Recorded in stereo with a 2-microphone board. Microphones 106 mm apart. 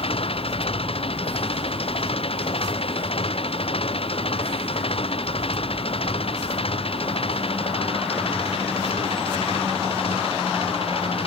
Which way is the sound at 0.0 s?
60° left (ahead or behind).